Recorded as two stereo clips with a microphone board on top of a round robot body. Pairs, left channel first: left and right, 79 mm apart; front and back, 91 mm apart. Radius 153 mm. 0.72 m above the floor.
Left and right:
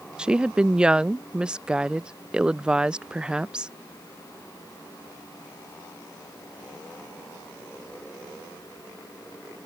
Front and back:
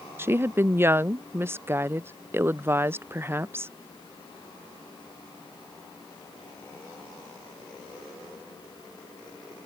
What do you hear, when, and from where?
0.2 s a woman speaking: 155° right